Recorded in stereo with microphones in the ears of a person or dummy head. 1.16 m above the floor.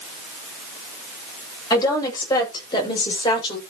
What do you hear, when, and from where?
1.7 s a woman speaking: 25° left (ahead or behind), 7.5 m; by 3.6 s 30° left (ahead or behind), 5.5 m